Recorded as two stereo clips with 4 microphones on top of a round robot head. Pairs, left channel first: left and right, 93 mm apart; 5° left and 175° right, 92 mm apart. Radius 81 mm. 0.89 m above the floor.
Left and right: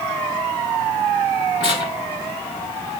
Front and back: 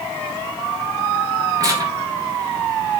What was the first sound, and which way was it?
Tearing paper, 135° left.